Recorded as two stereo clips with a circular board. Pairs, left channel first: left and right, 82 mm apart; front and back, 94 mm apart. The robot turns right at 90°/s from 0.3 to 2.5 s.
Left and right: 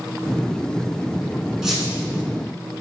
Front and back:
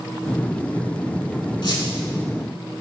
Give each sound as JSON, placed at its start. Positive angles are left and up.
{"t": 1.6, "sound": "a squeak", "azimuth_deg": -10, "distance_m": 0.7}